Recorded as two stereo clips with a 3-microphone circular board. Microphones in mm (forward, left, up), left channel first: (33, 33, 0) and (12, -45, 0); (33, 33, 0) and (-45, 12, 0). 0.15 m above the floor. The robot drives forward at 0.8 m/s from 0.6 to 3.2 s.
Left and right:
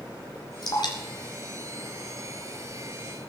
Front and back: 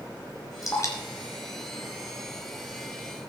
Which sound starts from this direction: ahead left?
Dripping, at 0.6 s.